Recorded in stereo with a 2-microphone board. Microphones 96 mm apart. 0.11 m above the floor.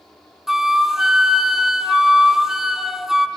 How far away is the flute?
About 0.9 m.